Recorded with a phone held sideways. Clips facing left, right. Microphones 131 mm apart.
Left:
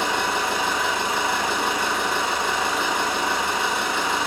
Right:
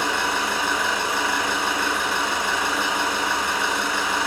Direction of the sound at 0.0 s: 30° left (ahead or behind).